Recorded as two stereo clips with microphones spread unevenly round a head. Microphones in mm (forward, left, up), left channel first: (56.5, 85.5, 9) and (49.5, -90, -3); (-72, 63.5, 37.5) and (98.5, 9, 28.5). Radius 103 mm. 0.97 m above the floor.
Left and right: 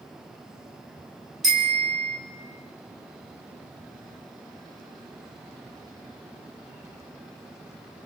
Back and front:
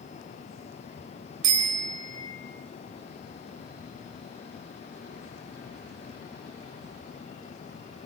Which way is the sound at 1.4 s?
45° right.